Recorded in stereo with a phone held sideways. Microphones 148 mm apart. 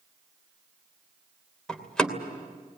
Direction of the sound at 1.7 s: 5° left (ahead or behind).